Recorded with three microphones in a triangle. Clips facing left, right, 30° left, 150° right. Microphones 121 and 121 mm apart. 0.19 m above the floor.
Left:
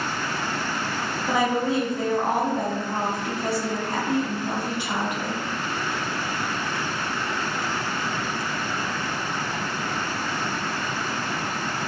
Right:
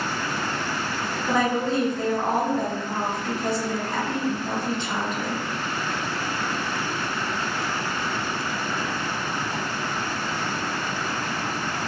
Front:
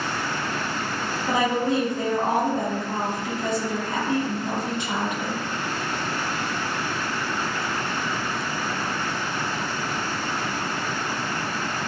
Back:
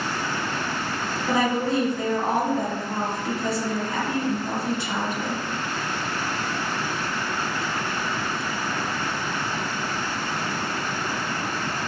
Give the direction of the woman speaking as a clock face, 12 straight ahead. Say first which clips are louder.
Even, even; 11 o'clock.